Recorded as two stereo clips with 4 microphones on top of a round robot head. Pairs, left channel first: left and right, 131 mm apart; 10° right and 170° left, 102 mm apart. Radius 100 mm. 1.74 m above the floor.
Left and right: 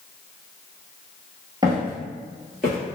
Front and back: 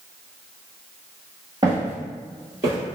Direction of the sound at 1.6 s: 130° right.